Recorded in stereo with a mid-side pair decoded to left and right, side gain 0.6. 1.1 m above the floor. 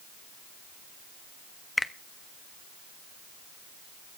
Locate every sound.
1.8 s a finger snap: 10° left, 1.0 m